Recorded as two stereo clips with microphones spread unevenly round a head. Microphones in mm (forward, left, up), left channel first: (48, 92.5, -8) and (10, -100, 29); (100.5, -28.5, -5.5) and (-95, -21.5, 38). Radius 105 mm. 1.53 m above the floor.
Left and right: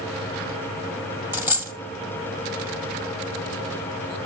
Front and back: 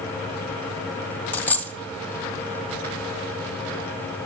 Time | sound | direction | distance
1.3 | a dropped coin | 105° right | 1.4 m